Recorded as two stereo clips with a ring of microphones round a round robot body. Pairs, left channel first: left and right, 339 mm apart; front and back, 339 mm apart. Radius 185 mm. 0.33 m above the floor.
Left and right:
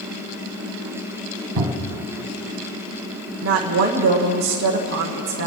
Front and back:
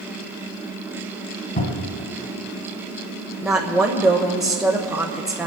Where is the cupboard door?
65° right, 2 m.